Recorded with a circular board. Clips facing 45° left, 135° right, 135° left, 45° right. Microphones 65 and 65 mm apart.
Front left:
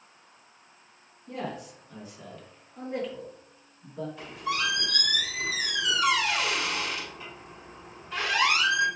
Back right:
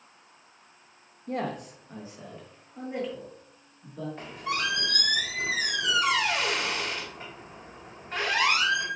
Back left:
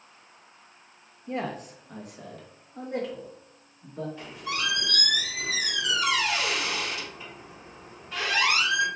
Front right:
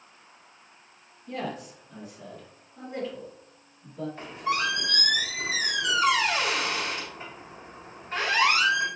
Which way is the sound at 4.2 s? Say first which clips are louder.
Front left 1 dB, front right 7 dB; 90° right.